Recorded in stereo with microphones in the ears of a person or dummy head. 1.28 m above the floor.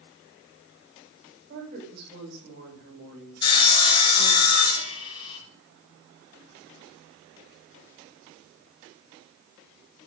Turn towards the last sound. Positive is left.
turn(degrees=30)  # may be behind; listen again after turning